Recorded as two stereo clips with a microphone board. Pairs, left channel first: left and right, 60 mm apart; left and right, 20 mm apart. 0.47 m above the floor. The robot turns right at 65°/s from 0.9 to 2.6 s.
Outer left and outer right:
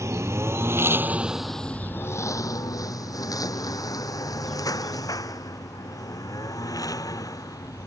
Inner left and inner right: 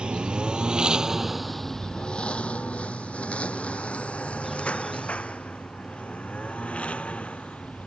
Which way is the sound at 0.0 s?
55° right (ahead or behind).